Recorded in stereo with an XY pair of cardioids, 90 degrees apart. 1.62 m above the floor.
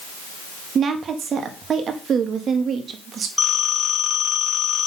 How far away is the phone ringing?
About 3.5 m.